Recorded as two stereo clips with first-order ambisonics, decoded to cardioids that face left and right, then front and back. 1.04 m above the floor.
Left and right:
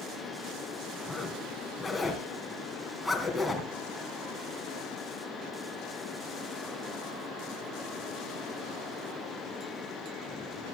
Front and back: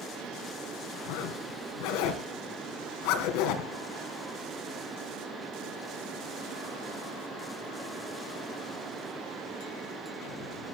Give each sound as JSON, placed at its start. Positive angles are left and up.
{"t": 1.1, "sound": "a zipper", "azimuth_deg": 5, "distance_m": 3.0}